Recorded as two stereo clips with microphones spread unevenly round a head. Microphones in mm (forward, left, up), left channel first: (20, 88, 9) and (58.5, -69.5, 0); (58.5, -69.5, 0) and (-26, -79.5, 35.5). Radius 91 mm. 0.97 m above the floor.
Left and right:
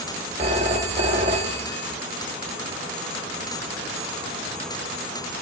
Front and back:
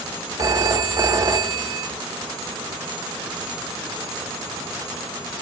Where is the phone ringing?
135° right, 0.7 m.